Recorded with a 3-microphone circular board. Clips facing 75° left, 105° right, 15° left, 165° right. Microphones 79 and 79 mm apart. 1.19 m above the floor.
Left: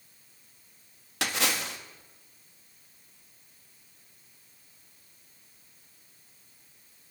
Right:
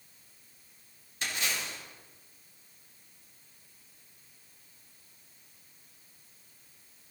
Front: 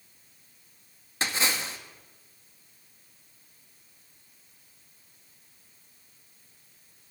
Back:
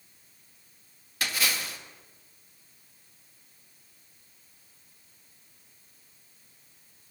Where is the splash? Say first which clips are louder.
Left 5 dB, front 2 dB; 75° left, 1.9 m.